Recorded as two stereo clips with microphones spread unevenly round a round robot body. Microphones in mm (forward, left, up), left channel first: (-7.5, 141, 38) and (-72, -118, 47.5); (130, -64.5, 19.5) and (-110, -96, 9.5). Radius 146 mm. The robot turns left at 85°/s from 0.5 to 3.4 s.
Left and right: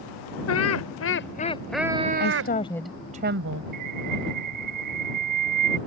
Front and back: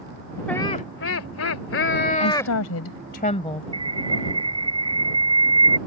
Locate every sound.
0.5 s laughter: 95° left; by 2.5 s 80° right
2.2 s a woman speaking: 40° left; by 3.6 s 60° right
3.7 s a bird: 100° right